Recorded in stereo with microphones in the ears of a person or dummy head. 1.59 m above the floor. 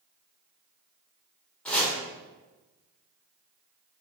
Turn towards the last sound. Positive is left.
turn(degrees=5)  # may be behind; listen again after turning